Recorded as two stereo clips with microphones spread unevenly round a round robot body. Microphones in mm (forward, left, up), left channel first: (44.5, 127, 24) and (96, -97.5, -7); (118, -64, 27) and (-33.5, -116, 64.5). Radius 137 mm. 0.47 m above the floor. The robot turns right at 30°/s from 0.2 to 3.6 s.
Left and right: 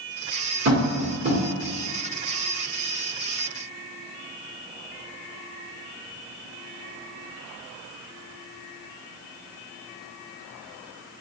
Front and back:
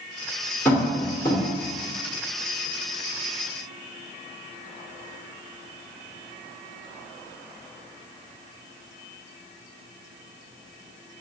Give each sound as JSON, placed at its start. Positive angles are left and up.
{"t": 0.7, "sound": "tapping", "azimuth_deg": -50, "distance_m": 1.6}